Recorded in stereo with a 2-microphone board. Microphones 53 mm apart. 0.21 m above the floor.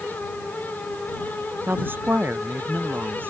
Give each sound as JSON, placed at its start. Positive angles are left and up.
{"t": 1.7, "sound": "a woman speaking", "side_deg": -40}